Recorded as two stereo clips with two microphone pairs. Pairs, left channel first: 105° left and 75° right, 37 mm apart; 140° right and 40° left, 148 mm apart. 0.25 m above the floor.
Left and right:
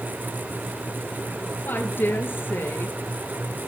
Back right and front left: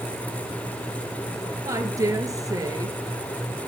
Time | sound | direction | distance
1.6 | a woman speaking | 105° left | 4 m